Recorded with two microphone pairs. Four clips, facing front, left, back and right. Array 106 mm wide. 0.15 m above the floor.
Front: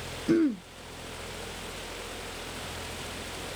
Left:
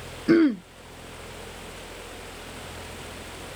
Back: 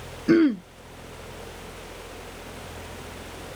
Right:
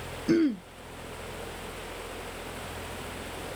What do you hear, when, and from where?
0.3 s throat clearing: 110° left